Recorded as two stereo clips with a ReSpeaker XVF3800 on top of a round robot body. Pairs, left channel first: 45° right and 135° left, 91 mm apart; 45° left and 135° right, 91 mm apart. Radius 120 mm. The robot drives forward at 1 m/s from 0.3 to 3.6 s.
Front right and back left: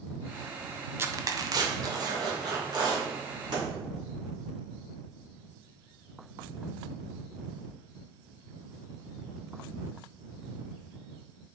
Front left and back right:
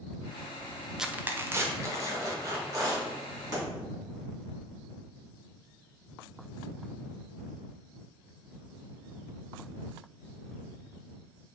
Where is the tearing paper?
145° left, 0.6 m; by 3.6 s 175° left, 3 m.